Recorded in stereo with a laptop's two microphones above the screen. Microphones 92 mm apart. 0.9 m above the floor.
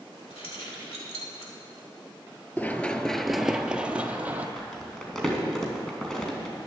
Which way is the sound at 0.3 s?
85° left.